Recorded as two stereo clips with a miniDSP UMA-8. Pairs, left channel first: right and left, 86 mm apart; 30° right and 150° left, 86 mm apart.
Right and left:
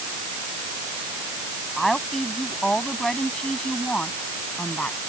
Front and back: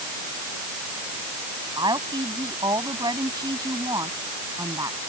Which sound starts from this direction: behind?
A woman speaking, at 1.8 s.